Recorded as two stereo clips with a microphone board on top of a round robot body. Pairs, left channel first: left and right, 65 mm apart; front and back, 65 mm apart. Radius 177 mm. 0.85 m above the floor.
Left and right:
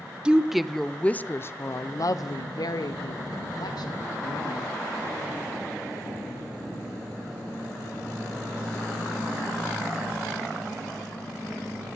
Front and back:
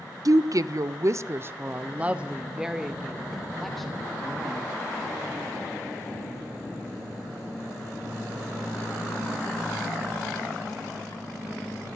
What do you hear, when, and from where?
0.2 s a woman speaking: 165° right, 0.9 m; by 4.8 s 80° left, 2 m